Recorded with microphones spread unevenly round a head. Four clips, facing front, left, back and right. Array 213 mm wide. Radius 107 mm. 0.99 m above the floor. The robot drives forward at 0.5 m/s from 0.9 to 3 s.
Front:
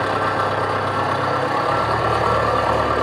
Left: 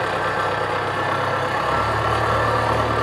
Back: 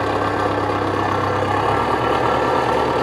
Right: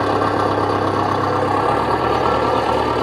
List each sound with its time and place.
0.0 s an engine running: 110° right, 2.5 m; by 3.0 s 130° right, 3 m